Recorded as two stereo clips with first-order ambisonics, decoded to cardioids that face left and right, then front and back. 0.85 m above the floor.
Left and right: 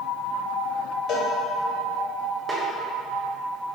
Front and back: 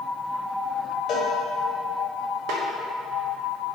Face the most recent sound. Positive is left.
turn(degrees=-165)